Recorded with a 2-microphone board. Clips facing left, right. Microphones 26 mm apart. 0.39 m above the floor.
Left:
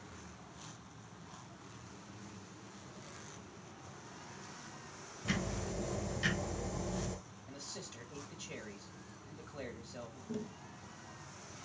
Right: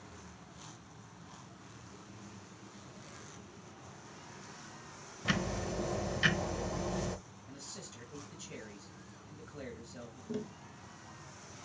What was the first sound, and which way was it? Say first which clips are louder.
Ticking: right 4 dB; 30° right (ahead or behind).